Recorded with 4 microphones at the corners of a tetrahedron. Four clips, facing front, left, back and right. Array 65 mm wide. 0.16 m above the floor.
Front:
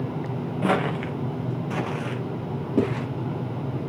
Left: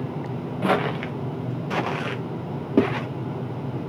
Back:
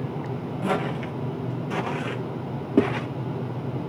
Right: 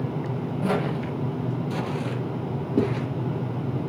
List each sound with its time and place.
0.6 s footsteps: 55° left, 2.5 m; by 3.1 s 125° left, 3.5 m